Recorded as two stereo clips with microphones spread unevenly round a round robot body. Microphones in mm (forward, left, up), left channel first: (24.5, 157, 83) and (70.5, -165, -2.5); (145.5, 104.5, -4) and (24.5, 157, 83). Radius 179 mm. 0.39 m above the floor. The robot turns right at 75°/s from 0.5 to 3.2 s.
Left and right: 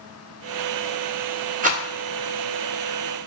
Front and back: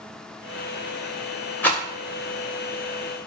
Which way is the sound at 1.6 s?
45° right.